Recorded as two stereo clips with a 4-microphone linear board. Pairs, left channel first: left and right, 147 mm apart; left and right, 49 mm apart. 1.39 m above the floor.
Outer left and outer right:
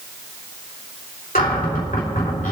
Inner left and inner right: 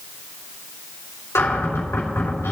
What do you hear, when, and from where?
1.4 s a cupboard door: 70° left (ahead or behind), 3.5 m